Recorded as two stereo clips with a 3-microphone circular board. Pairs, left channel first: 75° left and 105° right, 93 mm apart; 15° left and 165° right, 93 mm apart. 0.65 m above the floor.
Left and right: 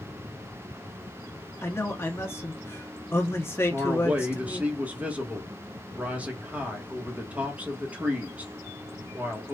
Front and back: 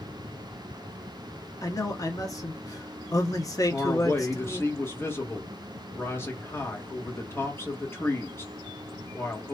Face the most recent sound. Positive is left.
turn(degrees=-40)